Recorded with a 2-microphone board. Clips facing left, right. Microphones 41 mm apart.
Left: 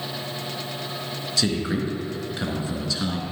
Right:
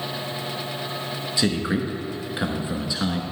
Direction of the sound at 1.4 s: 20° right (ahead or behind).